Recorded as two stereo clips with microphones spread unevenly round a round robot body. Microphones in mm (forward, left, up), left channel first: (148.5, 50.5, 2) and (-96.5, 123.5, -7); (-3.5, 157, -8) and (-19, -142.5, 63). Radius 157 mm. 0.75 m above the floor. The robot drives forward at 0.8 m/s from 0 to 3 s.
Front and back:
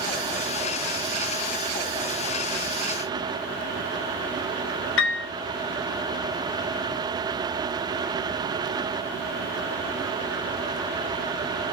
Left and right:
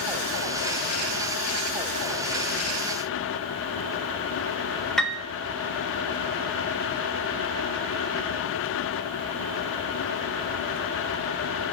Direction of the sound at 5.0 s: 10° left.